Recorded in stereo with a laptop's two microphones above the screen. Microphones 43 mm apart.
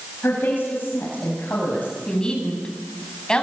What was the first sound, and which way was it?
A woman speaking, 50° left (ahead or behind).